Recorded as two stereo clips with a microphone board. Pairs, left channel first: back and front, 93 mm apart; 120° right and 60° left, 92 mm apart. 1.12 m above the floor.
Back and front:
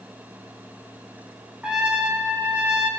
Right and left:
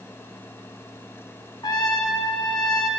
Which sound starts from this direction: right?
A trumpet, at 1.6 s.